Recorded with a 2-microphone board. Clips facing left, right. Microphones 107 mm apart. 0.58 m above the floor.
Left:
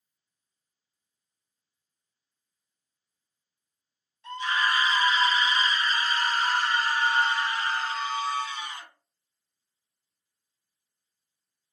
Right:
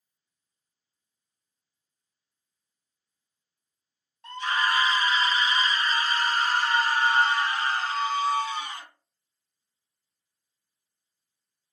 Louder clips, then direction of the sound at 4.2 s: Right 1 dB; 50° right (ahead or behind).